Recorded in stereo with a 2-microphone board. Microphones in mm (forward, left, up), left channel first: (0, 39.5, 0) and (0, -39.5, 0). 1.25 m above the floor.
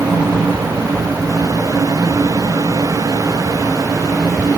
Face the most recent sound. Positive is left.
No sound to turn to.